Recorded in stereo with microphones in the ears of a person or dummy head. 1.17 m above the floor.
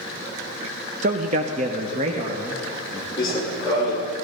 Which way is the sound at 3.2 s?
30° left (ahead or behind).